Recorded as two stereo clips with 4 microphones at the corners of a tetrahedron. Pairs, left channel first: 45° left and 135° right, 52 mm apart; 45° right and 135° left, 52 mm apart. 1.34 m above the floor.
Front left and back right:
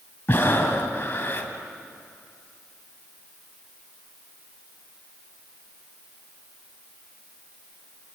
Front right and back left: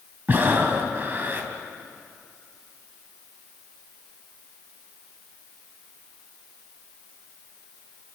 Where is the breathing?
90° left, 2.5 m.